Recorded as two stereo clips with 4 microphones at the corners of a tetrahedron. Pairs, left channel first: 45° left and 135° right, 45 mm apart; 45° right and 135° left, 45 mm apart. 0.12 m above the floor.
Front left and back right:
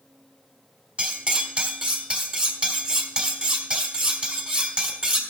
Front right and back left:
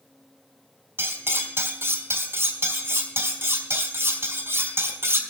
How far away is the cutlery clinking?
About 1.5 m.